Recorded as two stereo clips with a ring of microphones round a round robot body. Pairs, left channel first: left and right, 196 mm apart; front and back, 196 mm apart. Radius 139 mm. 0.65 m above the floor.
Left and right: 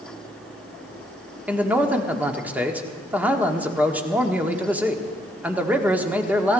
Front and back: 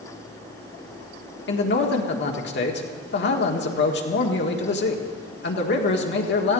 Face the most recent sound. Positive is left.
turn(degrees=-10)